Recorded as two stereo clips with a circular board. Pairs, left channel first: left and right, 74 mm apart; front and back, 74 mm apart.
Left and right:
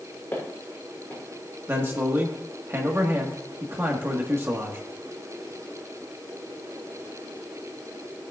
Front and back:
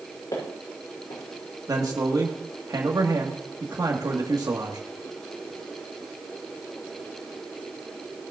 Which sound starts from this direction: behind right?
A man speaking, at 1.7 s.